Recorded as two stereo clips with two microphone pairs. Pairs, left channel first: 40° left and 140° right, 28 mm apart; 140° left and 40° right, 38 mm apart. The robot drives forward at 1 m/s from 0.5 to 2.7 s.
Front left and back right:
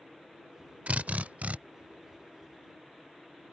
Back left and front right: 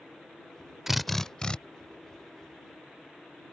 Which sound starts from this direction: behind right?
A drill, at 0.9 s.